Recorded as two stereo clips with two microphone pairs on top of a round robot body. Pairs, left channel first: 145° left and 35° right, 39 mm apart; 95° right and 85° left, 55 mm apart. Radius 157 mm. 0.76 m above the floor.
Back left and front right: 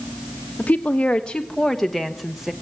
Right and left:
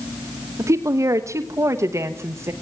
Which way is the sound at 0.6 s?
100° left.